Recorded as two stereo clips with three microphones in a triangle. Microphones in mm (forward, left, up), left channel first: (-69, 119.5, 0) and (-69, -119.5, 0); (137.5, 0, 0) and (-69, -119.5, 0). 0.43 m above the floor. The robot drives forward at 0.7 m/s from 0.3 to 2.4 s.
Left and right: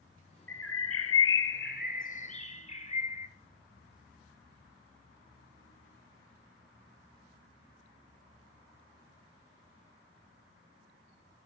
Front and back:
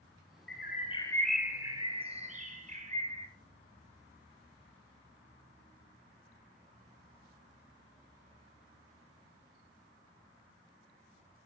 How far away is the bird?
About 0.7 m.